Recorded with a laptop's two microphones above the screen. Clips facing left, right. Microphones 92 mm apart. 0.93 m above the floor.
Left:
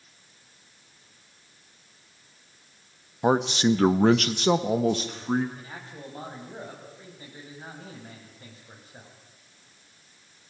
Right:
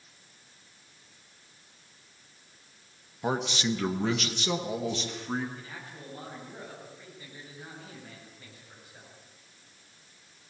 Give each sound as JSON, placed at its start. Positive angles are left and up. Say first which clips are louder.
{"t": 3.2, "sound": "a man speaking", "louder": "left 8 dB", "side_deg": 30, "distance_m": 1.3}
{"t": 5.5, "sound": "a man speaking", "louder": "left 2 dB", "side_deg": 30, "distance_m": 6.5}